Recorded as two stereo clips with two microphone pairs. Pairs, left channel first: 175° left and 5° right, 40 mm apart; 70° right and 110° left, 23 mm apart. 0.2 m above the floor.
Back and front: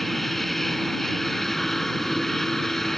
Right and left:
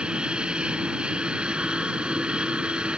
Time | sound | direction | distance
0.0 | an aircraft | 95° left | ?